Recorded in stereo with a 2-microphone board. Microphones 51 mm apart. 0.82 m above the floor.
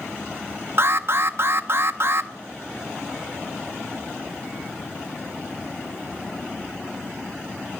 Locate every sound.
0.8 s an alarm: 55° right (ahead or behind), 0.6 m